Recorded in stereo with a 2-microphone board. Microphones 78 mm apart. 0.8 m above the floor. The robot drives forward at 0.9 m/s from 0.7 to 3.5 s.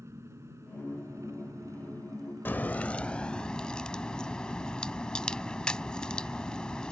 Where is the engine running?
40° right (ahead or behind); by 6.9 s 55° right (ahead or behind).